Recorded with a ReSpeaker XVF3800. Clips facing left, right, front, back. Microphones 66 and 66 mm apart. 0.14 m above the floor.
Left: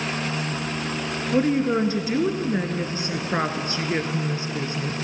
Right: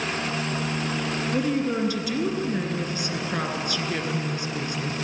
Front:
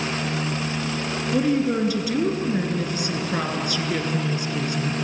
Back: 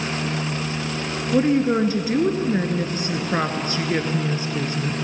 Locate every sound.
1.3 s a woman speaking: 140° left, 1.9 m